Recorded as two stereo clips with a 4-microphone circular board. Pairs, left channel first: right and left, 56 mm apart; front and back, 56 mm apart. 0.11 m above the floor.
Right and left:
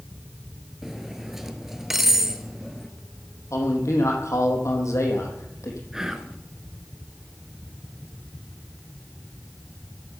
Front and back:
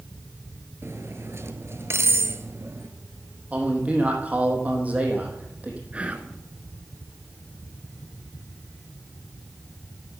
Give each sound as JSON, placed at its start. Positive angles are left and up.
{"t": 0.8, "sound": "cutlery clinking", "azimuth_deg": 170, "distance_m": 1.1}
{"t": 3.5, "sound": "a man speaking", "azimuth_deg": -115, "distance_m": 4.0}
{"t": 5.9, "sound": "whispering", "azimuth_deg": 160, "distance_m": 1.3}